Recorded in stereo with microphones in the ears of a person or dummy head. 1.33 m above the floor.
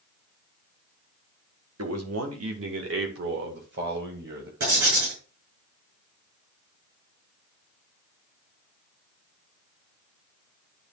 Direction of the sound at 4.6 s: 65° right (ahead or behind).